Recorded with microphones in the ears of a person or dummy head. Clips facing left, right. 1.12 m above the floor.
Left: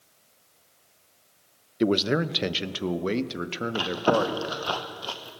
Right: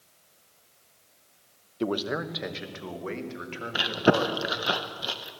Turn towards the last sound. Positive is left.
turn(degrees=-20)  # may be behind; listen again after turning